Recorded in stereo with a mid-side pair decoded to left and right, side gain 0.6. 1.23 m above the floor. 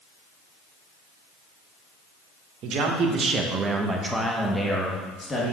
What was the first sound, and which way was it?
A man speaking, 60° right.